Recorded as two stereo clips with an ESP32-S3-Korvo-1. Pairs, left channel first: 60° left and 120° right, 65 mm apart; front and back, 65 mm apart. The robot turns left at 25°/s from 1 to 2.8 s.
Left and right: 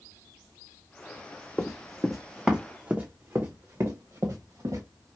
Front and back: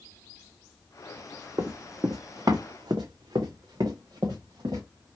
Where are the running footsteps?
140° left, 0.7 m; by 4.8 s 155° right, 1.6 m.